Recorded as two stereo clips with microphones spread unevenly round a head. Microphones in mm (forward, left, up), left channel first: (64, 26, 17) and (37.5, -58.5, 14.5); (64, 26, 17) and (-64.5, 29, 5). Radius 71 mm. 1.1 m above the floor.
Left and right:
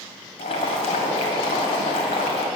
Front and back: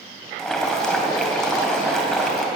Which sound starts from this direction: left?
Boiling, at 0.4 s.